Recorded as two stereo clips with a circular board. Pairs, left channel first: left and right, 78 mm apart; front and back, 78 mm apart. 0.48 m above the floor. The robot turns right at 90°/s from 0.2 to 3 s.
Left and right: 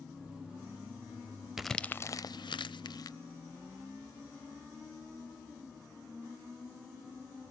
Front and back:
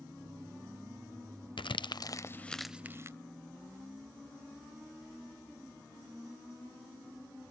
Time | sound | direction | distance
1.6 | crumpling | 5° right | 0.6 m